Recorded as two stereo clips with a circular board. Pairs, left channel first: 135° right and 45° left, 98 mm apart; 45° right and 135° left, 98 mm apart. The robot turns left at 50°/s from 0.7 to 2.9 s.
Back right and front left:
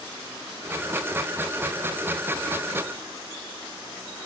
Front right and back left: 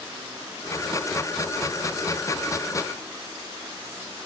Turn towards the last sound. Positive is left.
No sound to turn to.